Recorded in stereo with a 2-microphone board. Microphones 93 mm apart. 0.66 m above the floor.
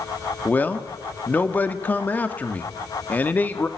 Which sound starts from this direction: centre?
A man speaking, at 0.5 s.